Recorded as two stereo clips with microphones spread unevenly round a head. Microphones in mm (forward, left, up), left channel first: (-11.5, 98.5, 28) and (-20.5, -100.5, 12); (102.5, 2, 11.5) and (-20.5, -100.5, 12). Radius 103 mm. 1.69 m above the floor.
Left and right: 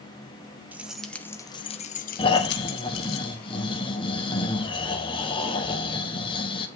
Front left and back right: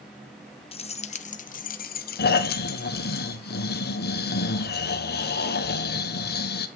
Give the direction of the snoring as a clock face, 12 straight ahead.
11 o'clock.